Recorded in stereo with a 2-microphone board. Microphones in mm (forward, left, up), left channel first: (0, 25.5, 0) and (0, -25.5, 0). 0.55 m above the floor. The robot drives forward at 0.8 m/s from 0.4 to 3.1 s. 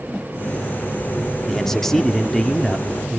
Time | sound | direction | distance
1.5 | a man speaking | 5° left (ahead or behind) | 1.0 m